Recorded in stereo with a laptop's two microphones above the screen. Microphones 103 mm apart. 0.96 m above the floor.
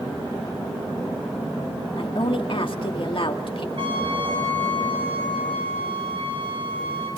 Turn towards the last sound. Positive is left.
turn(degrees=-60)  # may be behind; listen again after turning